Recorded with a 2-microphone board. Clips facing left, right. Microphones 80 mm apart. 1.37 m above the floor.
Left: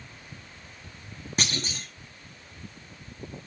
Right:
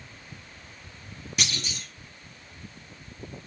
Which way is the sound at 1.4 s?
40° left (ahead or behind).